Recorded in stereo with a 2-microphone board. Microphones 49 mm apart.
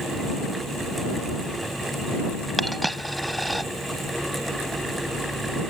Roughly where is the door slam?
No door slam in this recording.